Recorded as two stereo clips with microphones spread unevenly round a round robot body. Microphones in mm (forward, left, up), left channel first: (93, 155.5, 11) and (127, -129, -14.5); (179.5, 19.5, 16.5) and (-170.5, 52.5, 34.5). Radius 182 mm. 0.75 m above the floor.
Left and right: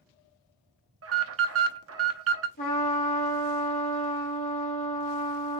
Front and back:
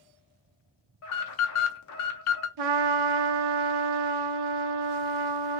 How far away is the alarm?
About 0.8 m.